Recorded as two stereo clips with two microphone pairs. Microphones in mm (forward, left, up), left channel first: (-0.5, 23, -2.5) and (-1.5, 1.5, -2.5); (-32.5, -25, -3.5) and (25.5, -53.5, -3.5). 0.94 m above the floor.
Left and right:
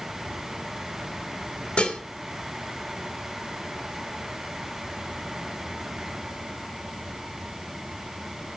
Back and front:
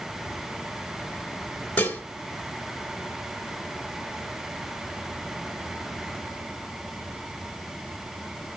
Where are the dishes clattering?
90° left, 1.6 m.